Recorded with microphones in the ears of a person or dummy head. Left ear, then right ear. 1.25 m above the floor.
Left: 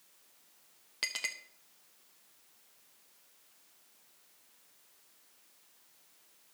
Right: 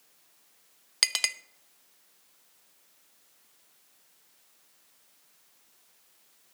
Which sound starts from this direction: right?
A clink, at 1.0 s.